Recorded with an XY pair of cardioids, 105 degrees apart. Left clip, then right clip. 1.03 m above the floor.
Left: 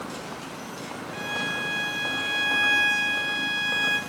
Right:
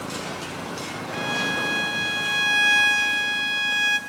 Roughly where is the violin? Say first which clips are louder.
Right 4 dB; ahead right.